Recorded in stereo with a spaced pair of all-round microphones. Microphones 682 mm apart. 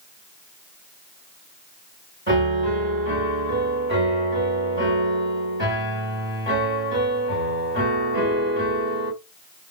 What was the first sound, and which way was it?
A piano, 15° right (ahead or behind).